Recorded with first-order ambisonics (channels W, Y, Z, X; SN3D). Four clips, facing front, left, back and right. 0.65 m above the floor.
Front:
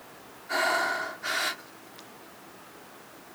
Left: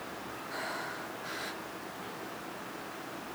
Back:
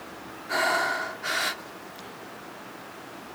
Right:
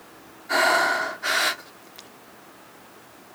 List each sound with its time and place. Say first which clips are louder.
0.5 s breathing: right 20 dB, back 1 dB; 95° right